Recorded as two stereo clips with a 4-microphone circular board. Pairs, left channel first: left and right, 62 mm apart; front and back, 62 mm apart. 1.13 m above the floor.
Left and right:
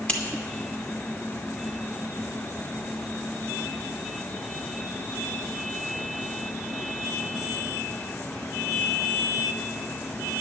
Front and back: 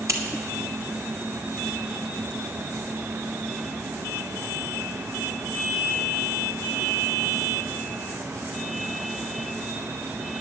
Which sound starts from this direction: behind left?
Scissors, at 0.1 s.